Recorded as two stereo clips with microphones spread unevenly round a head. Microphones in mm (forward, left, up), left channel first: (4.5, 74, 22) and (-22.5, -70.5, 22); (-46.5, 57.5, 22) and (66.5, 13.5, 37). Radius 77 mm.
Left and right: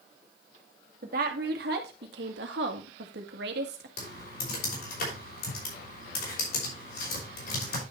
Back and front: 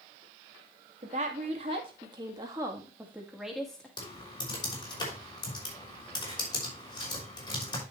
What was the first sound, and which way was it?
A woman speaking, 65° right.